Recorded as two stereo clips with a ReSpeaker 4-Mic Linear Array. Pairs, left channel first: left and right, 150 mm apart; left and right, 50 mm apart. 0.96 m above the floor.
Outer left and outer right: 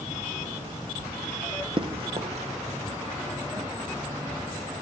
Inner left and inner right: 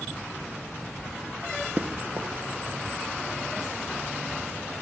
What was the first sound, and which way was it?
Running footsteps, 35° right (ahead or behind).